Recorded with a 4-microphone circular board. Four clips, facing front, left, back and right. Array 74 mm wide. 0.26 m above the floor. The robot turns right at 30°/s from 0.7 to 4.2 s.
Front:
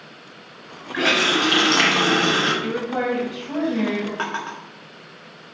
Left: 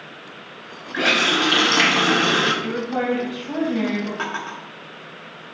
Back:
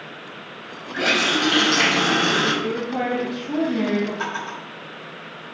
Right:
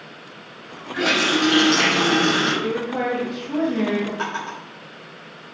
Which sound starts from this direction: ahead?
A drawer, at 4.2 s.